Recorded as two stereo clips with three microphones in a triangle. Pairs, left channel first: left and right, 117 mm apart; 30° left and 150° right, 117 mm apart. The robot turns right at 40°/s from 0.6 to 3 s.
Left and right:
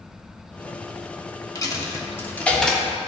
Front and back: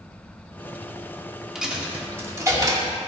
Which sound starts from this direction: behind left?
A dropped coin, at 1.6 s.